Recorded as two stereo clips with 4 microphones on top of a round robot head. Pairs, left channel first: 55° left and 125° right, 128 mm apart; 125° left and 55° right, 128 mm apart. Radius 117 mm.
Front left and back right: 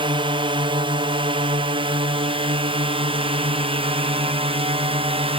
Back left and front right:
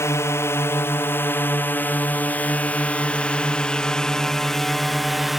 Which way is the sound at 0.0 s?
170° right.